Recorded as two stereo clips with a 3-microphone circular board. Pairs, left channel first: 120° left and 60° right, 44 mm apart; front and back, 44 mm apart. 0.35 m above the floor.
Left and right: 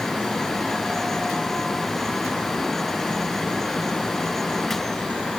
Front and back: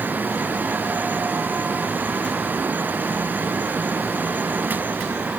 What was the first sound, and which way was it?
Only background noise.